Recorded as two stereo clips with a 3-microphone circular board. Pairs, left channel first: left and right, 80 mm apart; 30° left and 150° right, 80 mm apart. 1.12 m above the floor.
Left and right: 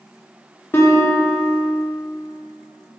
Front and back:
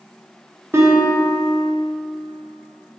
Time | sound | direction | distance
0.7 | a guitar | 155° left | 0.6 m